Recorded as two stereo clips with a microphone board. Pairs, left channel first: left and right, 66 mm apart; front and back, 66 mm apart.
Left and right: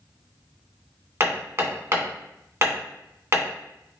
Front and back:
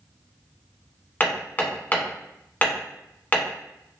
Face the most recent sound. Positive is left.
turn(degrees=-55)